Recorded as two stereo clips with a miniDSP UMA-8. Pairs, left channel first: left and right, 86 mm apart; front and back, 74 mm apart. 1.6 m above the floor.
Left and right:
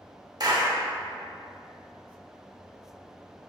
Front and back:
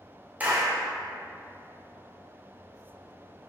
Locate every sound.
0.4 s a clap: 115° right, 0.9 m